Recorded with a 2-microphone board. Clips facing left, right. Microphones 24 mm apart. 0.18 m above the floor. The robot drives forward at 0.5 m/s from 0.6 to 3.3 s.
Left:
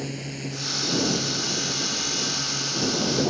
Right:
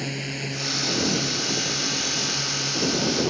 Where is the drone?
25° right (ahead or behind).